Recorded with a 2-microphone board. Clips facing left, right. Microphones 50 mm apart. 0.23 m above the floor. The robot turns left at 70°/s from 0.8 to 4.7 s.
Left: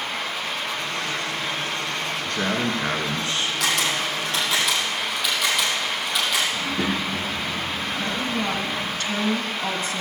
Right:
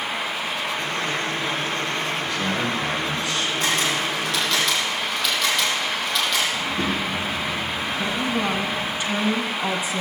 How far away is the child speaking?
About 2 m.